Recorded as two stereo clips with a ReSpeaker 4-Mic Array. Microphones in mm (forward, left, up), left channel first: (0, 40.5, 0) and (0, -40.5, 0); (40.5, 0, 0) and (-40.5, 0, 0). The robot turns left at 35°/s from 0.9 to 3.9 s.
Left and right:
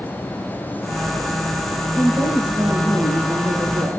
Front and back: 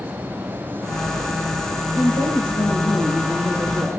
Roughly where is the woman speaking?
Ahead.